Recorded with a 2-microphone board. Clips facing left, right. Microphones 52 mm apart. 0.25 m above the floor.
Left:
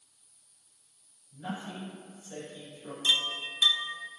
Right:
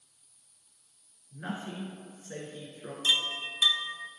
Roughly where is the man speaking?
Right.